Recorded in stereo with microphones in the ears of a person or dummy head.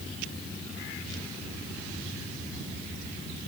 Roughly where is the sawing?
I don't hear sawing.